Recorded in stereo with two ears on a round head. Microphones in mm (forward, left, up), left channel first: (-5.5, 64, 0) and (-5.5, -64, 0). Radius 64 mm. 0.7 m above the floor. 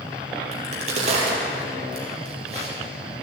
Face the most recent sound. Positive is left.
turn(degrees=-45)  # may be behind; listen again after turning